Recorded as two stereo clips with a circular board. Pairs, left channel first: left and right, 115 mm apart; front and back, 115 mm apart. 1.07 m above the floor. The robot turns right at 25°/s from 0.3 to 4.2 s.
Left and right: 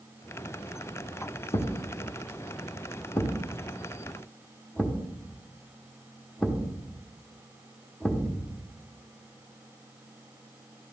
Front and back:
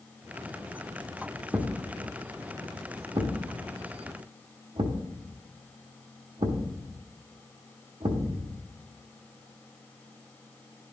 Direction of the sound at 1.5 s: 105° left.